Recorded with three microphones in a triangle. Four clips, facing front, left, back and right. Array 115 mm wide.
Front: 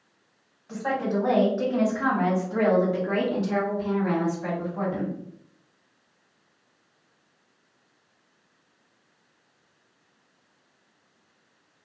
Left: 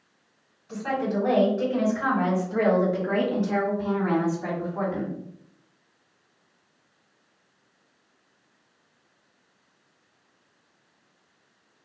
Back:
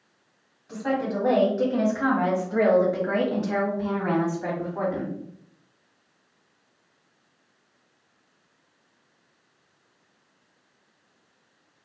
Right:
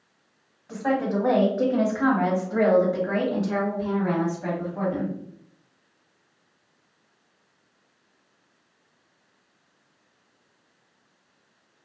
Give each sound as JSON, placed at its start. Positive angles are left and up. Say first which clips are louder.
{"t": 0.7, "sound": "a woman speaking", "louder": "right 3 dB, even", "azimuth_deg": -75, "distance_m": 1.7}